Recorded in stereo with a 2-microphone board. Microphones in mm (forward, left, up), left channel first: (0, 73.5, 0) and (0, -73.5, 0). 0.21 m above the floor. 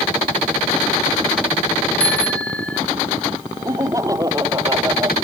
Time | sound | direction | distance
2.0 | a bicycle bell | 10° left (ahead or behind) | ?
3.6 | laughter | 25° right (ahead or behind) | ?